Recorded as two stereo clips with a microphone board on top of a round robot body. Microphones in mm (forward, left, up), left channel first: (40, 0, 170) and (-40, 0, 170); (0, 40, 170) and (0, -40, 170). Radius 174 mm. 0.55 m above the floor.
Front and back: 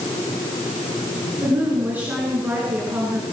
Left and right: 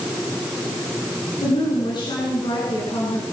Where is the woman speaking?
110° left, 9 m.